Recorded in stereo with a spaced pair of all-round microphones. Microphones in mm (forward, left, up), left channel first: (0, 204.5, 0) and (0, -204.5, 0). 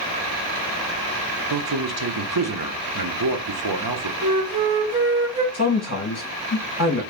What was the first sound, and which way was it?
A man speaking, 60° right (ahead or behind).